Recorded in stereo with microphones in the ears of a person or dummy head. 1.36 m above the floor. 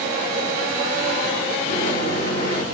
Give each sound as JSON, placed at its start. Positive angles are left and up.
{"t": 1.7, "sound": "a microwave", "side_deg": 55, "distance_m": 1.9}